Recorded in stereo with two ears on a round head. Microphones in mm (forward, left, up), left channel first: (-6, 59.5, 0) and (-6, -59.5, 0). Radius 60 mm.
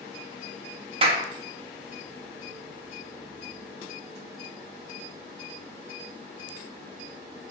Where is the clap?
40° right (ahead or behind), 1.7 m.